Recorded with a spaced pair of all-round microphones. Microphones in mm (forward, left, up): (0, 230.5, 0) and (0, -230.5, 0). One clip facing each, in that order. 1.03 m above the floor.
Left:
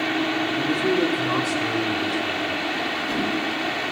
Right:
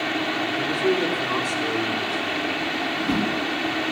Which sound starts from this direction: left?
A man speaking, at 0.6 s.